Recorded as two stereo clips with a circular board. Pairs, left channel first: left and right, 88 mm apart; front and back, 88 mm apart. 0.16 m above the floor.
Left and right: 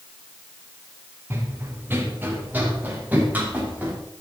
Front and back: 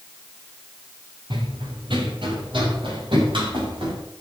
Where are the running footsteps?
155° right, 4 m; by 3.9 s 165° right, 7.5 m.